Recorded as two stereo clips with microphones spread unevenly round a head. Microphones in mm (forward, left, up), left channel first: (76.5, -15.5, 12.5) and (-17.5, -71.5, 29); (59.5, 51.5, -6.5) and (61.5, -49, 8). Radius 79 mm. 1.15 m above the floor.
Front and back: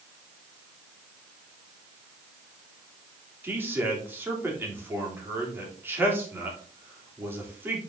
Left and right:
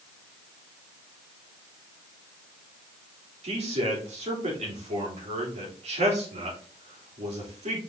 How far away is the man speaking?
About 3 m.